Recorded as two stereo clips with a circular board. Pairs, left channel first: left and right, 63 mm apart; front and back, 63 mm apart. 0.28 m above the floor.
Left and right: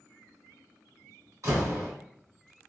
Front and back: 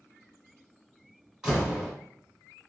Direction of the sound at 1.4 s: 105° right.